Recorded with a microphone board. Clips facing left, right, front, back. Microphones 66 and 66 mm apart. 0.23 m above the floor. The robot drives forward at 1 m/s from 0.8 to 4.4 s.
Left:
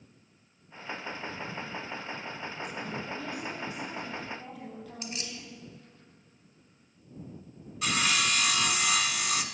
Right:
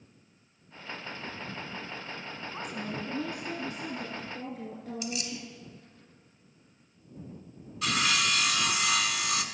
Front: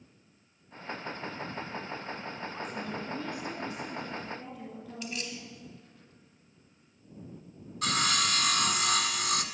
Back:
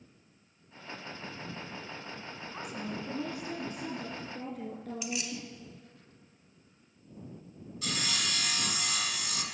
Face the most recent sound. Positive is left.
turn(degrees=10)